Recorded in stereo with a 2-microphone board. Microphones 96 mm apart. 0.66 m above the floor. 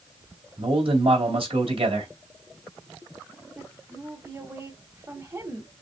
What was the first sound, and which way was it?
A man speaking, 65° right (ahead or behind).